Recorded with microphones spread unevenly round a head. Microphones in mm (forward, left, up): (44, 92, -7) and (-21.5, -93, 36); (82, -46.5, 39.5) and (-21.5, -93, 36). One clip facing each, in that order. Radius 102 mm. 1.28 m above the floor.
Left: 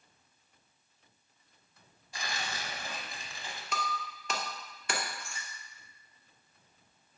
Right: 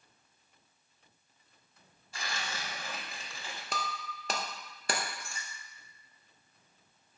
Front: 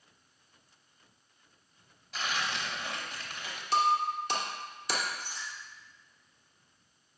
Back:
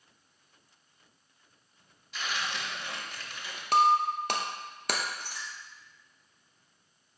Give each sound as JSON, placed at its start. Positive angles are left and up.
{"t": 2.1, "sound": "tearing paper", "azimuth_deg": -10, "distance_m": 1.1}
{"t": 3.7, "sound": "breaking glass", "azimuth_deg": -145, "distance_m": 0.6}